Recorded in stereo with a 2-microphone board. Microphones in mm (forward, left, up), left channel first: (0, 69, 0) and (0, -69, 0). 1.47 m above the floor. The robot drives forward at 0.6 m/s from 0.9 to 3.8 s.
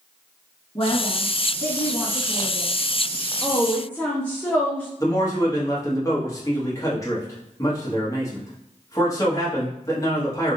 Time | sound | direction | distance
0.8 | a woman speaking | 45° left (ahead or behind) | 1.2 m
3.4 | a woman speaking | 15° left (ahead or behind) | 0.5 m
5.0 | a man speaking | 25° left (ahead or behind) | 1.4 m